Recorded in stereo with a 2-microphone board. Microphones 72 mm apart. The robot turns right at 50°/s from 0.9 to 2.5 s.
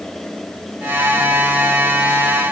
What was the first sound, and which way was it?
Only background noise.